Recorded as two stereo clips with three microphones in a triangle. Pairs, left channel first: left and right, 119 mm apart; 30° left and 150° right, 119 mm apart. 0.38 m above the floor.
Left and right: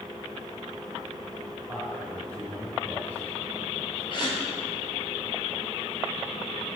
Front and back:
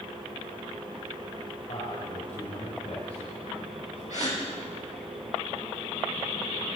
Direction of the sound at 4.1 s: 40° left.